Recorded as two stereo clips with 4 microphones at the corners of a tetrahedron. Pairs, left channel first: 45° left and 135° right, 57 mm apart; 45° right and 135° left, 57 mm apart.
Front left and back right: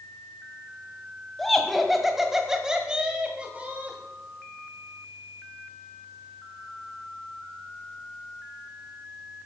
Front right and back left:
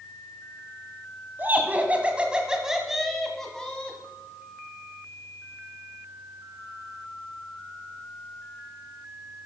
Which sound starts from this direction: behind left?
Laughter, at 1.4 s.